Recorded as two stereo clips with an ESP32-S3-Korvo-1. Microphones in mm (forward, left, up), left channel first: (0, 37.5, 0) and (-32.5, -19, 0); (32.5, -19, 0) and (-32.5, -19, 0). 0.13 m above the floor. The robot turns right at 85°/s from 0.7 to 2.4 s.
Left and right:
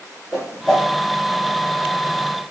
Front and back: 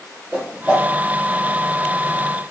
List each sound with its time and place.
0.3 s a whoosh: straight behind, 1.4 m; by 0.9 s 165° right, 1.4 m